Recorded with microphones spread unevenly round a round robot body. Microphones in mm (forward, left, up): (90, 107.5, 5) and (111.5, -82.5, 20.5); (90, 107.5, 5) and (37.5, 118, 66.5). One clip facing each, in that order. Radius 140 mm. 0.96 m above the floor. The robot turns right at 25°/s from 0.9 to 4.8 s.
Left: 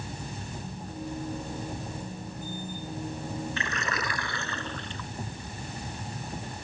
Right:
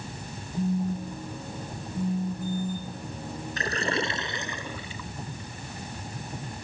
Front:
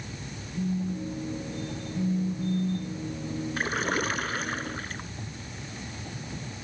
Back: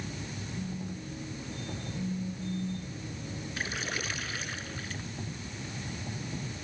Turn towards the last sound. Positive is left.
turn(degrees=0)